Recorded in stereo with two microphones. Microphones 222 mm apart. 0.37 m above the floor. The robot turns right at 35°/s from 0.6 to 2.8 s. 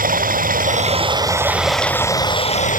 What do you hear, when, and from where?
0.0 s running water: 40° right; by 2.8 s 35° left